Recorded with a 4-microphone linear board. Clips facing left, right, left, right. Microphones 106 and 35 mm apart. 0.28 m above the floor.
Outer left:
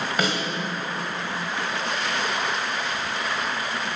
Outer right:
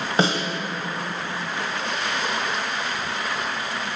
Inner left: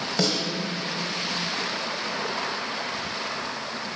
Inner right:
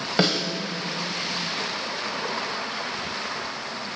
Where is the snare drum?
30° right (ahead or behind), 1.1 m.